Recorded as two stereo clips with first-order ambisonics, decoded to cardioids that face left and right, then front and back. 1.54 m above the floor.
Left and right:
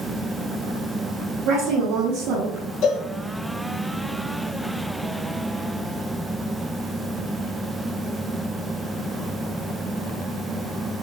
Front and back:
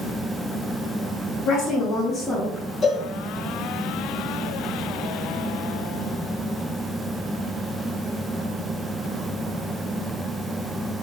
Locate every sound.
1.4 s a woman speaking: 50° right, 1.5 m; by 2.7 s 95° right, 1.3 m
2.8 s a cowbell: 60° left, 1.8 m